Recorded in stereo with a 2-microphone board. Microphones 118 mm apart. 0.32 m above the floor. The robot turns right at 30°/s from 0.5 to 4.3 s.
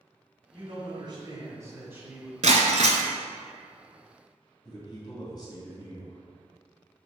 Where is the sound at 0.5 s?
65° right, 2 m; by 2.3 s 10° right, 2 m.